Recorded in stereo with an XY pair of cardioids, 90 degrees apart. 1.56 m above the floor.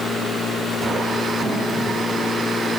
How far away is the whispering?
I don't hear whispering.